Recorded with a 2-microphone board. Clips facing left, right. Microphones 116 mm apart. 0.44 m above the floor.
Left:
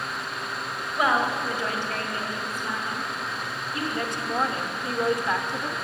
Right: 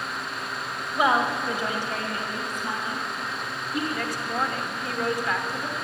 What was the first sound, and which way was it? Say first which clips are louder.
A woman speaking: right 1 dB; 5° right (ahead or behind).